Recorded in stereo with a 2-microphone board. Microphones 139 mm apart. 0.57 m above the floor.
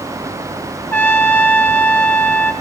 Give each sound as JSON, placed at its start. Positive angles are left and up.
{"t": 0.9, "sound": "a trumpet", "side_deg": 15, "distance_m": 1.6}